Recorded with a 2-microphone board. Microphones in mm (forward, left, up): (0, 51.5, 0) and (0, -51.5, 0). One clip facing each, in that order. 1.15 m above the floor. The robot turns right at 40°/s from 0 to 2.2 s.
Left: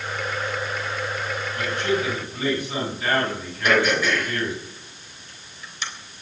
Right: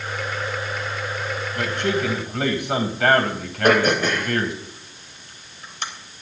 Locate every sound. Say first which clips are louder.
1.6 s a man speaking: right 1 dB; 55° right (ahead or behind), 5.5 m; by 4.6 s 80° right, 5.5 m
3.6 s throat clearing: right 3 dB; 50° right (ahead or behind), 3.5 m